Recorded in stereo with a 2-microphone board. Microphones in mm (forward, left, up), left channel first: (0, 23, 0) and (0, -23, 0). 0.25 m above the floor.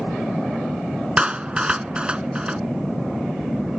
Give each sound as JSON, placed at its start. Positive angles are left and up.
{"t": 1.2, "sound": "a clap", "side_deg": -20}